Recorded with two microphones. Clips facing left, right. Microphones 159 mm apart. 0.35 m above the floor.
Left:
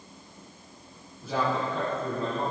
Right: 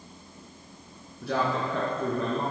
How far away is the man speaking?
About 4.5 m.